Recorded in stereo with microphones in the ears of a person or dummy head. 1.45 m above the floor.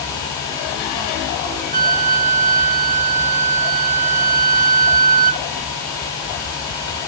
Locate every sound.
1.7 s a flute: 45° right (ahead or behind), 2.5 m